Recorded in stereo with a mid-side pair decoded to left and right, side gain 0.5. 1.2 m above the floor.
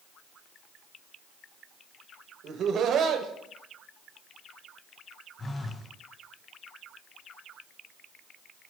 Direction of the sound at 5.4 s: 30° left.